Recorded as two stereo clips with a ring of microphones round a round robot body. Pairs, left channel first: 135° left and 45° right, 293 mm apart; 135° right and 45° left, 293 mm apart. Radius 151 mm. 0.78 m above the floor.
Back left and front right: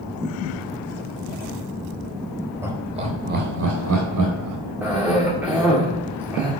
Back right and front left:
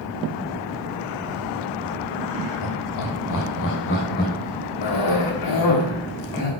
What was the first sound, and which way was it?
Laughter, 125° right.